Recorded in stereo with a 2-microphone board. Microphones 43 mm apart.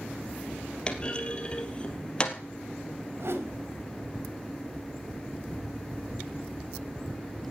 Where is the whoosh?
65° right (ahead or behind), 2.5 m.